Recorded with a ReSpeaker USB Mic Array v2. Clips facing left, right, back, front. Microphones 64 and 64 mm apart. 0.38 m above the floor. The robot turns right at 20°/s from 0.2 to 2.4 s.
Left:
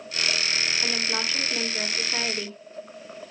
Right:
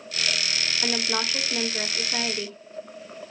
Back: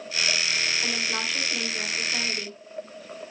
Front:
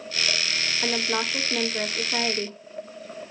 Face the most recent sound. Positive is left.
turn(degrees=0)